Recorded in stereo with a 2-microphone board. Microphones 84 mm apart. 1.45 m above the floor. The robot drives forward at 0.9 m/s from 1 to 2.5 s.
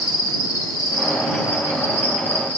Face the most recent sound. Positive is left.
turn(degrees=25)  # may be behind; listen again after turning